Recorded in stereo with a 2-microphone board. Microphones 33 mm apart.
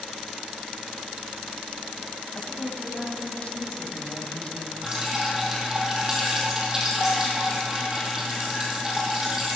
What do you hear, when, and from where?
2.4 s a woman speaking: 40° left (ahead or behind), 2.5 m
4.8 s dripping: 20° right (ahead or behind), 4 m